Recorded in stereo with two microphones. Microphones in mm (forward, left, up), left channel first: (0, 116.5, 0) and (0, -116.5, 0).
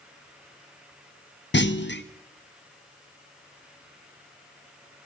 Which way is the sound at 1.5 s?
50° left (ahead or behind).